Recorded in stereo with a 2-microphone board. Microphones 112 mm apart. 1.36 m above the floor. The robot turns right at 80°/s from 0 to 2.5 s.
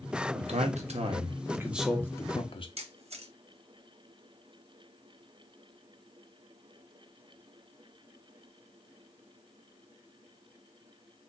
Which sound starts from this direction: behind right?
A man speaking, at 0.3 s.